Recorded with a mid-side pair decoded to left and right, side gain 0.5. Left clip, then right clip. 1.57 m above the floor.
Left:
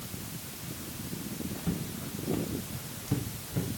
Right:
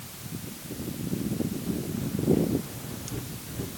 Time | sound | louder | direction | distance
1.6 | footsteps | right 5 dB | 50° left | 7 m